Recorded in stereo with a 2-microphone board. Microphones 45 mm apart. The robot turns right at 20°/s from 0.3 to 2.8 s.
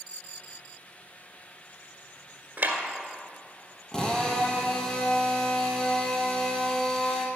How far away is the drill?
About 1.7 m.